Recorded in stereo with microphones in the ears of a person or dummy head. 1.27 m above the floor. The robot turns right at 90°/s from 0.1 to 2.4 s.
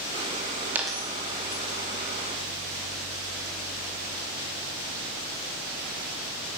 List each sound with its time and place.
0.8 s a dropped coin: 10° right (ahead or behind), 1.0 m; by 1.6 s 50° left (ahead or behind), 1.0 m